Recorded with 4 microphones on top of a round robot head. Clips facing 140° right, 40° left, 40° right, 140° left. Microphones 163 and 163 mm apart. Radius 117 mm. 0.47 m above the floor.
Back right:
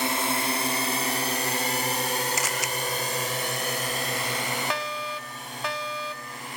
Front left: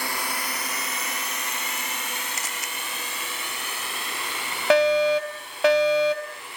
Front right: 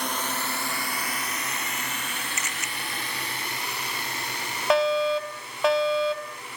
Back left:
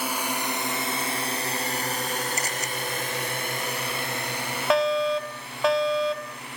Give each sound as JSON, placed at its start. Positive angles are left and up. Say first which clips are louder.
{"t": 0.0, "sound": "a drone", "louder": "back right 5 dB, back left 2 dB", "azimuth_deg": -145}
{"t": 2.4, "sound": "a camera shutter", "louder": "back right 6 dB, back left 5 dB", "azimuth_deg": -160}
{"t": 4.7, "sound": "a fire alarm", "louder": "front left 15 dB, front right 1 dB", "azimuth_deg": 50}